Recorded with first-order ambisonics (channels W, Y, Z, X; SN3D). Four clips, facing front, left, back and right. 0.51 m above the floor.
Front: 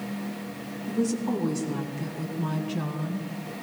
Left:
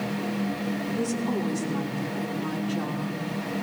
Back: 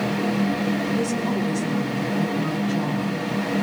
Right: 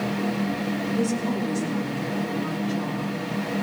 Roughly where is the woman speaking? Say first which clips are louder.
Right 3 dB, back 4 dB; behind right.